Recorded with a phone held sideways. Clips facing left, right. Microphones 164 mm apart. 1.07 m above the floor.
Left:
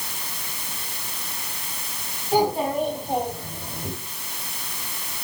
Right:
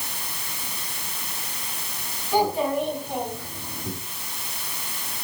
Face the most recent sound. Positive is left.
turn(degrees=50)  # may be behind; listen again after turning